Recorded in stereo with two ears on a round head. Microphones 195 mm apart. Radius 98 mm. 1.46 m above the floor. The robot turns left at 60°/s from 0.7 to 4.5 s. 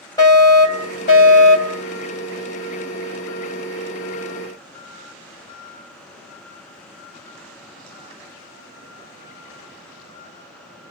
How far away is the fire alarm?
About 3.5 m.